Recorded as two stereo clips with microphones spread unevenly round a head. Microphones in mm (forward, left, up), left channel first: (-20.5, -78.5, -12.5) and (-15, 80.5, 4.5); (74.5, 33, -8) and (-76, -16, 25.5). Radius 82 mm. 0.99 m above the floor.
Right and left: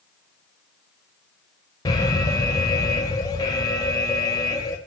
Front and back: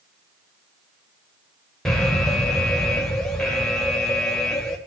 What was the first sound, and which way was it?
An alarm, 50° right.